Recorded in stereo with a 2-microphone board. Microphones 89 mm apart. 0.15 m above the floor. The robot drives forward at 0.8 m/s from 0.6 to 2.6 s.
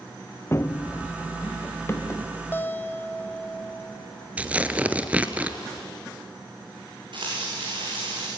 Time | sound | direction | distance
0.5 | running footsteps | 30° left (ahead or behind) | 0.6 m
2.5 | a guitar | 20° left (ahead or behind) | 1.4 m
4.4 | tearing paper | 15° right (ahead or behind) | 1.1 m
7.1 | frying | 60° right (ahead or behind) | 7 m